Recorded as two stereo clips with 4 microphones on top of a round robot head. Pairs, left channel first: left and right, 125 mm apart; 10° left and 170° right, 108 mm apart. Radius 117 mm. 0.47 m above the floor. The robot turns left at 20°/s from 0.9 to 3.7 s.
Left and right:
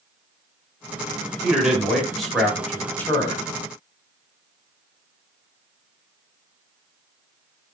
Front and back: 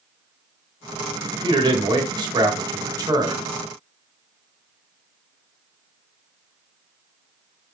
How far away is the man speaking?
About 1.7 m.